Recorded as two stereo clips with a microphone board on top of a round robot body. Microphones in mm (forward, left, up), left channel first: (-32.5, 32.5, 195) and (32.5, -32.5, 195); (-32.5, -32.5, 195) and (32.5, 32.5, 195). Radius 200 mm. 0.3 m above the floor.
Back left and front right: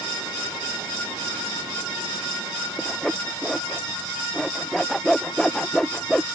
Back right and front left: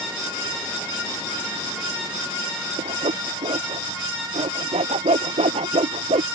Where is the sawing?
50° left.